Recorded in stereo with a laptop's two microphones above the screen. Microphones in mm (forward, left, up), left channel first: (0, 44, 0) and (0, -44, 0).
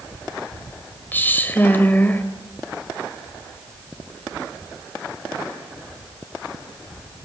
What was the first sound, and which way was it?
A woman speaking, 20° left (ahead or behind).